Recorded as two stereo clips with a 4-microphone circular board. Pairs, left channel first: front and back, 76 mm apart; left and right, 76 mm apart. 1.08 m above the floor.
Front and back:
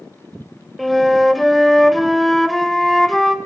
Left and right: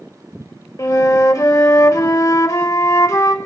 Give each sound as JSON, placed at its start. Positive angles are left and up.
{"t": 0.8, "sound": "a flute", "azimuth_deg": 90, "distance_m": 1.0}